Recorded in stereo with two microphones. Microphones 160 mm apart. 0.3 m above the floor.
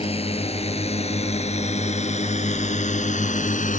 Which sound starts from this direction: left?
A drone, at 0.0 s.